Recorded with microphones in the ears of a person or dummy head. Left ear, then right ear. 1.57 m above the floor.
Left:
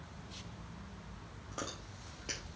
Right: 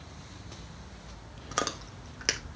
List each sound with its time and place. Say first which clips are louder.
1.5 s chewing: right 12 dB; 55° right (ahead or behind), 0.6 m